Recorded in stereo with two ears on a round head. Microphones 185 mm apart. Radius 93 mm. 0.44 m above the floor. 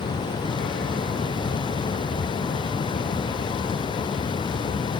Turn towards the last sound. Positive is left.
No sound to turn to.